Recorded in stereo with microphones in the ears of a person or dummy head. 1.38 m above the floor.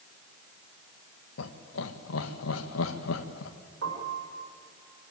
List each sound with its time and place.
1.4 s laughter: 70° left (ahead or behind), 1.8 m
3.8 s a piano: 90° right, 5.5 m